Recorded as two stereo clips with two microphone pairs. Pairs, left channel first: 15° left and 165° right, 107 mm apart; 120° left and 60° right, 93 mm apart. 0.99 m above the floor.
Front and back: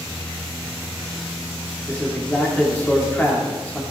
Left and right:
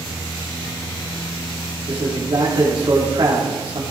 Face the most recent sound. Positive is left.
turn(degrees=-60)